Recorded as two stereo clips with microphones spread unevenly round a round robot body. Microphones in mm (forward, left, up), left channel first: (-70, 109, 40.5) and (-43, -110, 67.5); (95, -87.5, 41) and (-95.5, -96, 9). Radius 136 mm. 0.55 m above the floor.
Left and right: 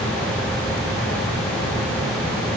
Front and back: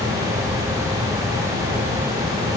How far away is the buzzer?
No buzzer in this recording.